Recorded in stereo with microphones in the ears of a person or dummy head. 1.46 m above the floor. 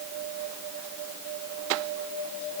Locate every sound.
Only background noise.